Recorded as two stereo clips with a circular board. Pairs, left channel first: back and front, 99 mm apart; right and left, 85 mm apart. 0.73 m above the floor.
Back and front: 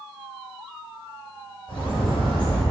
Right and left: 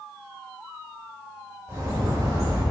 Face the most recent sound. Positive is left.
turn(degrees=140)